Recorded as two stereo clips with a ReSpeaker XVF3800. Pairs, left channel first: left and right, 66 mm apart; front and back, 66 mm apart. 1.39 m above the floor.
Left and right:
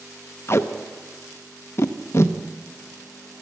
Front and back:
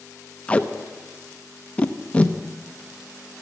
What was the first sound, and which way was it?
Tape being pulled, 65° left.